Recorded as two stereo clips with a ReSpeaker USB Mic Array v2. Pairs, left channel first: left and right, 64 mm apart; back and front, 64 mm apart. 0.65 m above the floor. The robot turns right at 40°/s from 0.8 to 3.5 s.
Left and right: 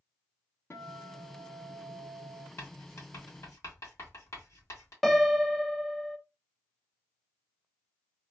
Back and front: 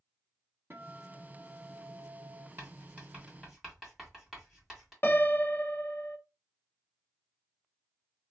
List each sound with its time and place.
0.7 s a guitar: 50° left, 0.9 m; by 2.5 s 115° left, 0.9 m
2.6 s writing: 50° left, 1.6 m; by 4.9 s 85° left, 1.6 m
5.0 s a piano: 170° left, 0.5 m